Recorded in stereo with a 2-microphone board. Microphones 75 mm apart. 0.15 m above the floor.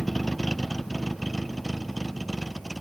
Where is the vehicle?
Centre (ahead or behind).